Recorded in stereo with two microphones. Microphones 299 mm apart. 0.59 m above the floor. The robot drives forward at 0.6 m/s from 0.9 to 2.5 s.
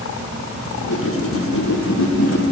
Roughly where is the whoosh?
Left.